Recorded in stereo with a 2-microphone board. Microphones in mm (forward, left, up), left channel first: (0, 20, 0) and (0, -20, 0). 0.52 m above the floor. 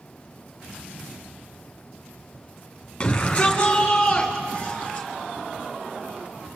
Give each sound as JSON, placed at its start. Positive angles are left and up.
{"t": 3.0, "sound": "a shout", "side_deg": 30, "distance_m": 4.0}